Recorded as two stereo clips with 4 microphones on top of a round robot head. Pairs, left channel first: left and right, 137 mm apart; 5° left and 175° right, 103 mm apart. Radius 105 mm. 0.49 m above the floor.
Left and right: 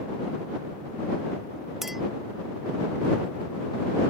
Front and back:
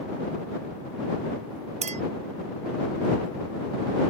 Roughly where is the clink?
Behind.